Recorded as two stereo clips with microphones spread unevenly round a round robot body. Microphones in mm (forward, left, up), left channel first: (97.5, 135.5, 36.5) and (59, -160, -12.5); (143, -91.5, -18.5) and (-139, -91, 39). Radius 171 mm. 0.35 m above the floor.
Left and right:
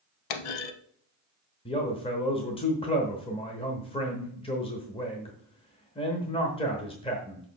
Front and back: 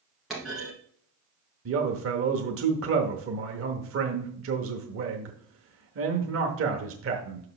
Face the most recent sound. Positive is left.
turn(degrees=160)